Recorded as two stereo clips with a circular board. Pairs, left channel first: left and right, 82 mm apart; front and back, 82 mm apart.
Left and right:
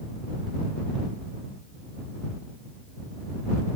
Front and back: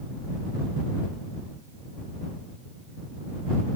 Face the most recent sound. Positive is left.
No sound to turn to.